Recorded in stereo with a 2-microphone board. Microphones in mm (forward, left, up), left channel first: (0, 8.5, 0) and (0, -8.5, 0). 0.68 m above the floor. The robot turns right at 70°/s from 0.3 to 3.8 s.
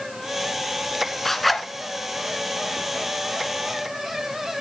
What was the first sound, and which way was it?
A zipper, 15° left (ahead or behind).